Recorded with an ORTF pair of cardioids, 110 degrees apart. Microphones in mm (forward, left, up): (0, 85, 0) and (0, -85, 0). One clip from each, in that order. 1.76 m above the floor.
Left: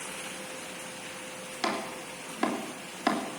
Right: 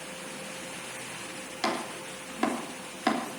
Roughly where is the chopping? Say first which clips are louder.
Right 1 dB; ahead.